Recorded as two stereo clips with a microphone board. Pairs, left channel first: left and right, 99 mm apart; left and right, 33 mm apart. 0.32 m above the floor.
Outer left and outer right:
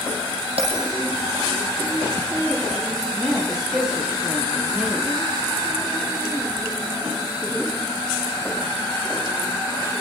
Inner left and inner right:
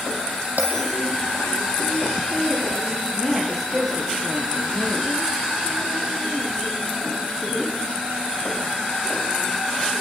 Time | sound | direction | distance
0.6 | a bell | 85° right | 5 m
3.1 | a woman speaking | 10° right (ahead or behind) | 8 m